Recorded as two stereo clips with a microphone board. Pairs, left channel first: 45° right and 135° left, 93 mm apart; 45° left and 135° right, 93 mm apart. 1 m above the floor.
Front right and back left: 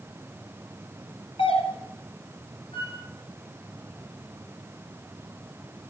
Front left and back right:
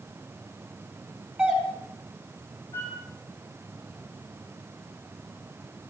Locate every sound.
1.4 s a doorbell: 50° right, 4.5 m
2.7 s a flute: 20° right, 6.5 m